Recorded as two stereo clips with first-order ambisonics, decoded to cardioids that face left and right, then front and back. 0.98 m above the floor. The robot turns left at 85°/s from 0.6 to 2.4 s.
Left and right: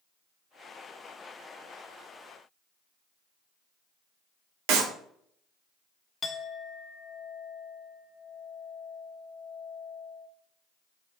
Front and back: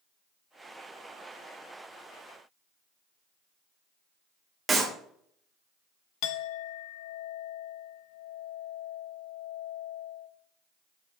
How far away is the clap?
About 1.6 m.